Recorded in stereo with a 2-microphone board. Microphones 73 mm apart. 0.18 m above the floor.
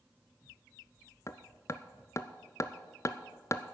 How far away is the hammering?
About 0.6 m.